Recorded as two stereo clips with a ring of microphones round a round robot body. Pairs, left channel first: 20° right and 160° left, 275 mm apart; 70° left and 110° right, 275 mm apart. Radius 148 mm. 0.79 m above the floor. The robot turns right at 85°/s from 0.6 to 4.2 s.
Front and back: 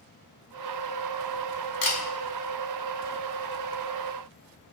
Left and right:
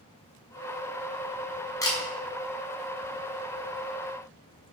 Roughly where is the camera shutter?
Ahead.